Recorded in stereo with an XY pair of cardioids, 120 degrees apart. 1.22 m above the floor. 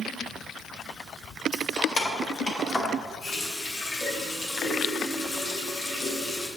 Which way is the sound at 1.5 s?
30° left.